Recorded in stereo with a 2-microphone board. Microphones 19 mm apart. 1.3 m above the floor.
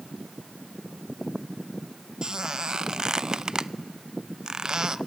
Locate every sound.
2.2 s a squeak: 35° right (ahead or behind), 0.6 m